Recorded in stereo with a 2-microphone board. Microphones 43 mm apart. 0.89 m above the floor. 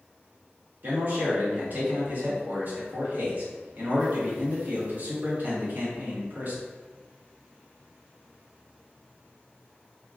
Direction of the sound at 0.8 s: 50° right (ahead or behind).